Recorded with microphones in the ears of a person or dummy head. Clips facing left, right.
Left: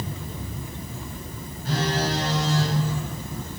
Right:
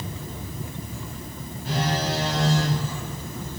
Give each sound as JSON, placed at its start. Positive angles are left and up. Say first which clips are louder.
{"t": 1.6, "sound": "a phone buzzing", "louder": "left 1 dB", "side_deg": 45, "distance_m": 2.5}